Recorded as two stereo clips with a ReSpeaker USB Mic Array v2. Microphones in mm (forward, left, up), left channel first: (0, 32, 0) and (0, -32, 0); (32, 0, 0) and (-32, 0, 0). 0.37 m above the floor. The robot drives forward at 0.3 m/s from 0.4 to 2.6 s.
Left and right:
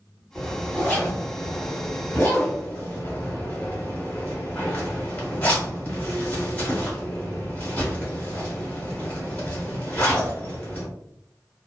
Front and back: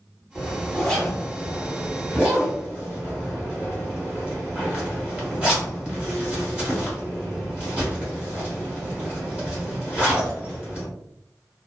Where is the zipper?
55° left, 1.2 m; by 10.9 s 130° left, 1.2 m.